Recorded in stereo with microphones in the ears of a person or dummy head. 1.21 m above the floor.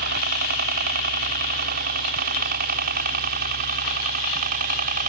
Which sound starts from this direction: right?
A helicopter, at 0.0 s.